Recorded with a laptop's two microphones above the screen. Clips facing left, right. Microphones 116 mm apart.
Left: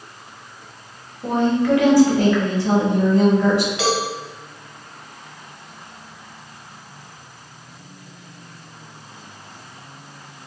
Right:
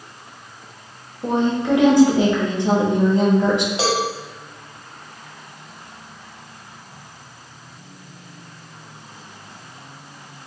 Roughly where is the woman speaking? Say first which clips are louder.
Left 1 dB; right.